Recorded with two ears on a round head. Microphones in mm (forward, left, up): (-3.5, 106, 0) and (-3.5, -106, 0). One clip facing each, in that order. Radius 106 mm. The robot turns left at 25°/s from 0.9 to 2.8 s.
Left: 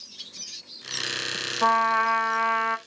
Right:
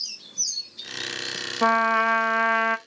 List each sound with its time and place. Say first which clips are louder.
1.6 s a trumpet: right 3 dB; 45° right (ahead or behind), 0.6 m; by 2.8 s 65° right (ahead or behind), 0.6 m